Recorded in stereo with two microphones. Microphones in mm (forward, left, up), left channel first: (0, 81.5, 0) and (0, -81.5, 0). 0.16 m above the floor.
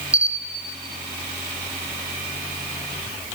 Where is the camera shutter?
10° right (ahead or behind), 0.8 m.